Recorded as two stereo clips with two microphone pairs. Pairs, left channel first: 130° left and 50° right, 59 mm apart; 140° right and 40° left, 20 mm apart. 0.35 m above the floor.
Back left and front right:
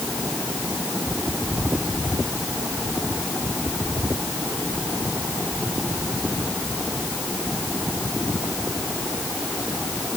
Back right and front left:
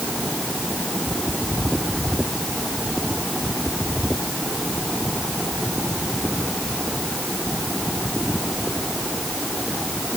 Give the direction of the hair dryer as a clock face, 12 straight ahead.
I don't hear a hair dryer.